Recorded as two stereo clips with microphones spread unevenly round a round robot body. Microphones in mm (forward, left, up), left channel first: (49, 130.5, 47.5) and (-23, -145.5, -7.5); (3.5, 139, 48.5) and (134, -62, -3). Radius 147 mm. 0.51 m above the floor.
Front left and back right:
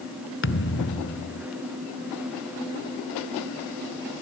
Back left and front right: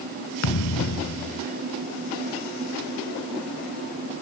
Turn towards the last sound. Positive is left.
turn(degrees=125)